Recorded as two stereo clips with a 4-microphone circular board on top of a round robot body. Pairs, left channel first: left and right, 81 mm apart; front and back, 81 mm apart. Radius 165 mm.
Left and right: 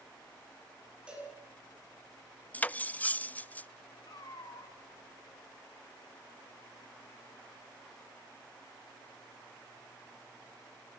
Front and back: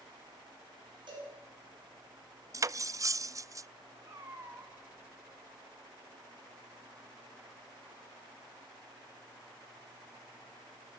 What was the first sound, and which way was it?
A cowbell, 165° right.